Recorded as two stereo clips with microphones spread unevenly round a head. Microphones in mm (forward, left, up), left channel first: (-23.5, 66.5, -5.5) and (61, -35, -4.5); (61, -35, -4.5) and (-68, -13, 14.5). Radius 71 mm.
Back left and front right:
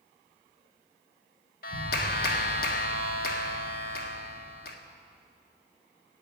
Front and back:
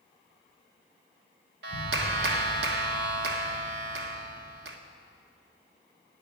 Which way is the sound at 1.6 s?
160° left.